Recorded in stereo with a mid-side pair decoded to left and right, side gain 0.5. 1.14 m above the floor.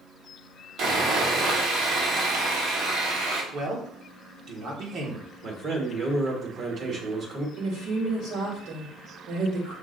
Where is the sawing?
60° right, 1.5 m.